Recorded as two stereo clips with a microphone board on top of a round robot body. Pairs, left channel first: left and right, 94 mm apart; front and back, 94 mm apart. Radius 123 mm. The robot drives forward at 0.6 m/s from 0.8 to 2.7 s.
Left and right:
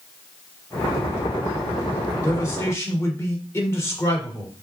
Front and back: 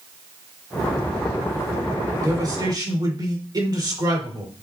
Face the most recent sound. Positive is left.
turn(degrees=150)